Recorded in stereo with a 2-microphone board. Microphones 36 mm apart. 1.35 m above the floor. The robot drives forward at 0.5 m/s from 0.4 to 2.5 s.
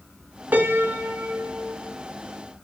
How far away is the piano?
About 0.7 m.